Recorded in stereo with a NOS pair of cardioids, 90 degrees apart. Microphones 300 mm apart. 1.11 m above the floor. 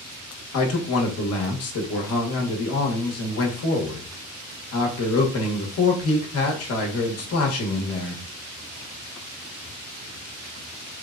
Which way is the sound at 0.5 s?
50° left.